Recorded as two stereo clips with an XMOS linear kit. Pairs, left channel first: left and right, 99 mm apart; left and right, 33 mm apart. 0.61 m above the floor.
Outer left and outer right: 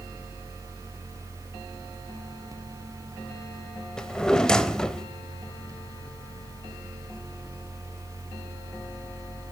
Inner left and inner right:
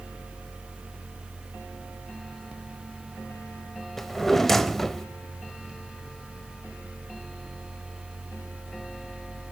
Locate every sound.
4.0 s a drawer: 5° left (ahead or behind), 0.7 m